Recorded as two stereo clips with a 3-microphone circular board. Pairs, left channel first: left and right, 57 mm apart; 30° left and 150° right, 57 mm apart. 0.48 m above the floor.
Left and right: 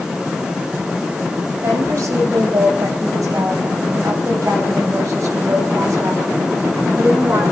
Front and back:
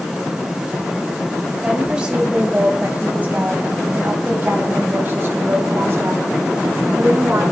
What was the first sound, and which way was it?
A woman speaking, 75° right.